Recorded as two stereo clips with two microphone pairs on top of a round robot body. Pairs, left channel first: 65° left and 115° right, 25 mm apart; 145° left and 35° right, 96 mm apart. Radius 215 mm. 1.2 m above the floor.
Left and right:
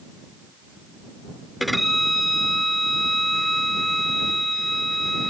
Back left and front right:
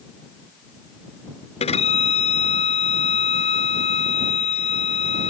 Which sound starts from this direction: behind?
A violin, at 1.6 s.